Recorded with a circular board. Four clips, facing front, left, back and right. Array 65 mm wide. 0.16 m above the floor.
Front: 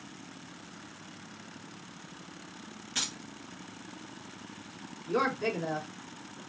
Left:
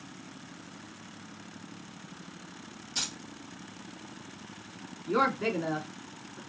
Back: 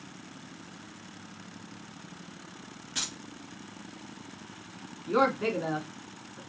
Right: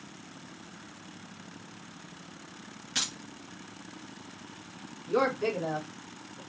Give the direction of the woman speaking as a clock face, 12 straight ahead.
7 o'clock.